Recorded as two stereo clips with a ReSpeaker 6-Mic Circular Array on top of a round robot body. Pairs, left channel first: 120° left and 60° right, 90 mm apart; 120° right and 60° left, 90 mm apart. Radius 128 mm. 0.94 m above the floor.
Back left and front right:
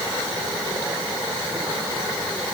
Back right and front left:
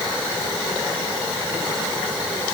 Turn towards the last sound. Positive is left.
No sound to turn to.